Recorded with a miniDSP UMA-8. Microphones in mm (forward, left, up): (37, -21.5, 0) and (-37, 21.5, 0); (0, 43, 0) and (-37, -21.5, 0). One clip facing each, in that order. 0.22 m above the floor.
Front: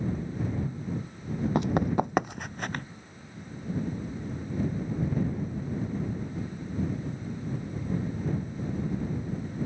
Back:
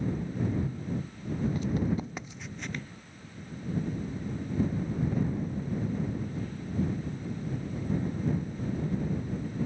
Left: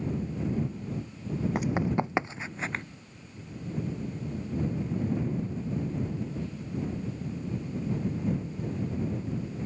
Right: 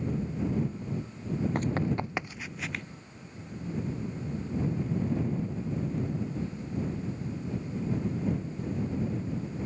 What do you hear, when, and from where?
1.6 s running footsteps: 20° right; by 2.8 s 10° left